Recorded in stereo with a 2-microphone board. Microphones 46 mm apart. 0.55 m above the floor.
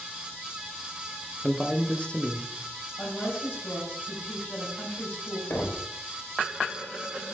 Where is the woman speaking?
45° left (ahead or behind), 3.5 m.